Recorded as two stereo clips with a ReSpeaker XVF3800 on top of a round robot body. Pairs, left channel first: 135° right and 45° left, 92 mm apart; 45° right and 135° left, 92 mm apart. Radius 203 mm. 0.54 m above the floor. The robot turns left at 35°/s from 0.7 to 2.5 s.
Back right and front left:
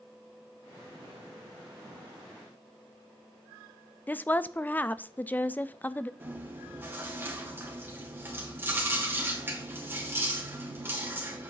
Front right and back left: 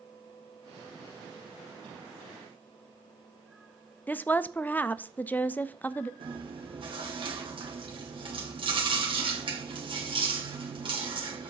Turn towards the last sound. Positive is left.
turn(degrees=110)